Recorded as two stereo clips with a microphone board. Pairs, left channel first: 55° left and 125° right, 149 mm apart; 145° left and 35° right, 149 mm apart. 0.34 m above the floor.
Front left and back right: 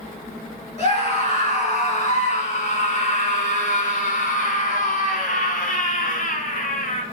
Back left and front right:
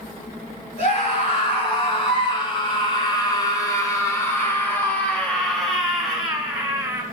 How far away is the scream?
About 4.5 m.